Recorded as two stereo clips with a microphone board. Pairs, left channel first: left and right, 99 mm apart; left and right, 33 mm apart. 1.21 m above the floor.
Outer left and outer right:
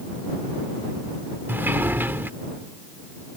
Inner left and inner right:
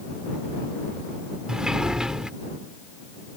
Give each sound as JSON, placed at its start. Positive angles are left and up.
{"t": 1.5, "sound": "a sliding door", "side_deg": -20}